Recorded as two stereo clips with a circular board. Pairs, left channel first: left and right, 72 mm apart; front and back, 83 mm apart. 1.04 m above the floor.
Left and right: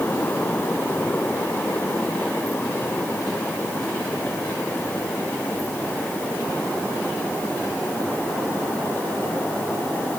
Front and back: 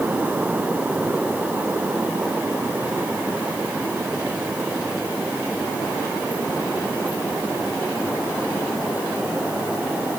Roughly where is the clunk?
I don't hear a clunk.